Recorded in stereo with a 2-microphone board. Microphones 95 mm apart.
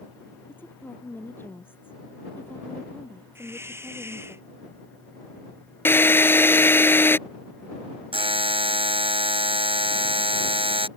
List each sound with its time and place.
0.5 s a woman speaking: 20° left (ahead or behind)
3.4 s a hiss: 25° right (ahead or behind)
5.8 s a drill: 25° left (ahead or behind)
8.1 s a buzzer: 75° right (ahead or behind)